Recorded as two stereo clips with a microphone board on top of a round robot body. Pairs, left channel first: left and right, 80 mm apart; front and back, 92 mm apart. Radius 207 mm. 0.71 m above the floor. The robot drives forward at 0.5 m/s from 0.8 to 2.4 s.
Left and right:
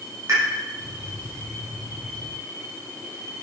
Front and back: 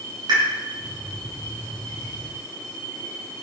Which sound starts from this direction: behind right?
A pop, at 0.3 s.